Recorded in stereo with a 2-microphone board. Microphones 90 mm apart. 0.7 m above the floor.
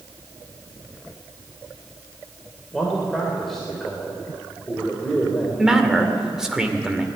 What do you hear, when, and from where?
2.7 s a man speaking: 5° left (ahead or behind), 3.5 m
5.6 s a man speaking: 5° right (ahead or behind), 2 m